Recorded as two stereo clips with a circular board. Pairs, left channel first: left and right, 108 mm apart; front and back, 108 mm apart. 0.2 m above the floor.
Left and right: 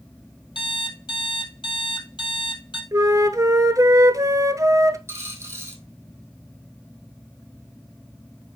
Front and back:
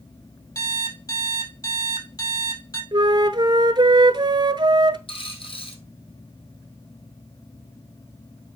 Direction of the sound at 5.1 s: 25° right.